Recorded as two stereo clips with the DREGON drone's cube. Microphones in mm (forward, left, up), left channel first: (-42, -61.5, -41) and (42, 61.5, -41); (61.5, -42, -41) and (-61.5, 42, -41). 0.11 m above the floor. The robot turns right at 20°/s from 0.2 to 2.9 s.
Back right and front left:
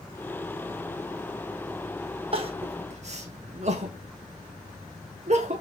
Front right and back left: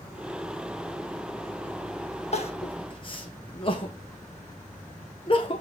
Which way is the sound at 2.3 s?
10° left.